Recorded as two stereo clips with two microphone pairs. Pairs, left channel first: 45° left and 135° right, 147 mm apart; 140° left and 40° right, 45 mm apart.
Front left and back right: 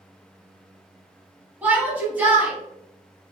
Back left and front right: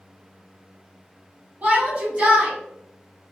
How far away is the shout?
About 1.3 m.